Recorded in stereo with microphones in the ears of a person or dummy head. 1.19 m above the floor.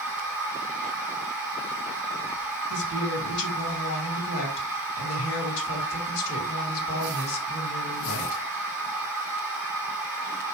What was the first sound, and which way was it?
A machine running, centre (ahead or behind).